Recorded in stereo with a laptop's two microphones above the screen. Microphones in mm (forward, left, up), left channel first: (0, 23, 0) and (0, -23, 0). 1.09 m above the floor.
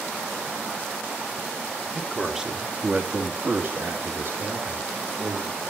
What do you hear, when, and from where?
1.9 s a man speaking: centre (ahead or behind), 2.5 m; by 5.6 s 85° right, 3.5 m